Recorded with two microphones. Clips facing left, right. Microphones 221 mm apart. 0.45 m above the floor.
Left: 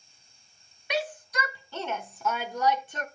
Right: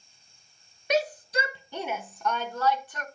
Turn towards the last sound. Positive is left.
turn(degrees=30)  # may be behind; listen again after turning